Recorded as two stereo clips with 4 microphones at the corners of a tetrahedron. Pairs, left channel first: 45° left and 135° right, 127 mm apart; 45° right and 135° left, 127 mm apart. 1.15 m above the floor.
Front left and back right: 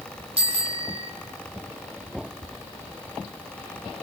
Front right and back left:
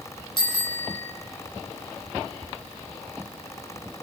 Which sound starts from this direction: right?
A bicycle bell, at 0.4 s.